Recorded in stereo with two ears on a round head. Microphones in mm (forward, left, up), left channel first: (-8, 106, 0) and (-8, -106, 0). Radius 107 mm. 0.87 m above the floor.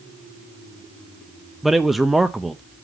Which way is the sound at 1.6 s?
Centre (ahead or behind).